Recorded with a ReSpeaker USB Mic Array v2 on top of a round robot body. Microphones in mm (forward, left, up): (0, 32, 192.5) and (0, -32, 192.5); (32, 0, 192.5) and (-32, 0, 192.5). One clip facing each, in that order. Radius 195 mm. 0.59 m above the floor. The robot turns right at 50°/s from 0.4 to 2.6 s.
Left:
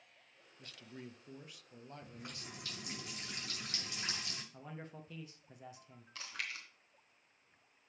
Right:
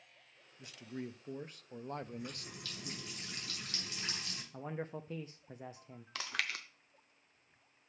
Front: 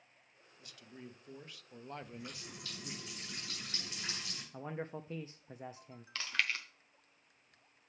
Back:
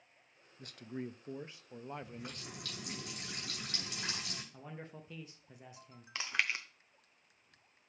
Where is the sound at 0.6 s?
170° right, 0.7 m; by 3.0 s 65° right, 0.7 m.